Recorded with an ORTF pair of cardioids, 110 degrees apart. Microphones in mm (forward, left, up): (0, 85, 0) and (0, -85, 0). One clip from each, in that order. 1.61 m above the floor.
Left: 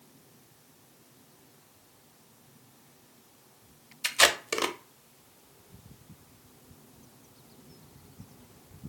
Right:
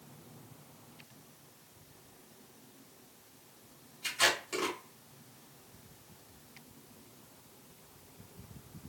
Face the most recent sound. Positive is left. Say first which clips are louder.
# left 6 dB
turn(degrees=65)